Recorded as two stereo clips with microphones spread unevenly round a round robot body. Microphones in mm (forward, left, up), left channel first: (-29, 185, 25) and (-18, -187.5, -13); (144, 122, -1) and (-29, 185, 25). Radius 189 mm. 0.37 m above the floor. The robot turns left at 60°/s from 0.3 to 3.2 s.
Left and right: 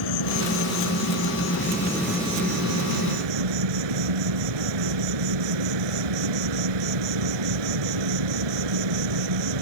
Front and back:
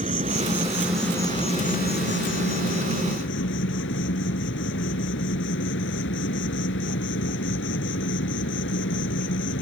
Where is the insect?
110° left; by 9.6 s 65° right.